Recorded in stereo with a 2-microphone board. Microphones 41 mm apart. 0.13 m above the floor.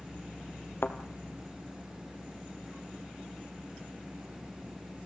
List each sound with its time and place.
0.8 s a thud: 60° left (ahead or behind), 1.3 m